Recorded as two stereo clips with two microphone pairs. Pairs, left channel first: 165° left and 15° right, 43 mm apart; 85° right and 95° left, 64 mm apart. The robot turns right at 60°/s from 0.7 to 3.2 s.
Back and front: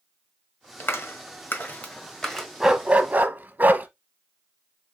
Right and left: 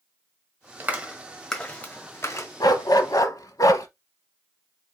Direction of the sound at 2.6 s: 100° right.